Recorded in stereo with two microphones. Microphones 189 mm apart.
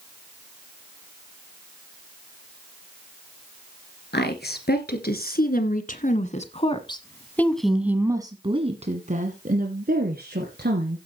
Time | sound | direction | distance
4.1 | a woman speaking | 65° left (ahead or behind) | 2.5 m